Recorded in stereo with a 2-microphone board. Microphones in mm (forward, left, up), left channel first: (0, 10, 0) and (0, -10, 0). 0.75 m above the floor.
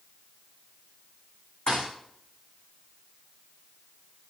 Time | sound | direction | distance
1.7 | a thud | 55° left (ahead or behind) | 5.5 m